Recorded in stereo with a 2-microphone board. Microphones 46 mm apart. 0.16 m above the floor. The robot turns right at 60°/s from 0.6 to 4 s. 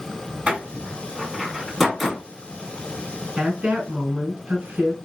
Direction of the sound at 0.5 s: 30° right (ahead or behind).